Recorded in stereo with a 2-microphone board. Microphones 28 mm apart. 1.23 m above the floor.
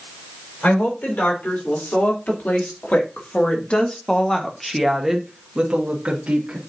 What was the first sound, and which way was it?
A woman speaking, 75° left (ahead or behind).